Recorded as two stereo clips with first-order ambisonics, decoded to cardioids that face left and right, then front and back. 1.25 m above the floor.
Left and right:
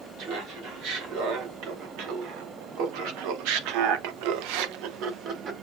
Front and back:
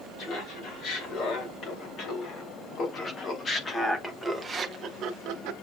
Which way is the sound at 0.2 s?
50° right.